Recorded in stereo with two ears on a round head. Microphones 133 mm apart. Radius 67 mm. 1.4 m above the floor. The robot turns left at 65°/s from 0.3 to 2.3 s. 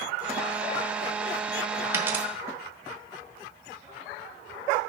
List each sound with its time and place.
1.9 s a dropped coin: 15° right (ahead or behind), 1.1 m; by 2.2 s 10° right (ahead or behind), 1.1 m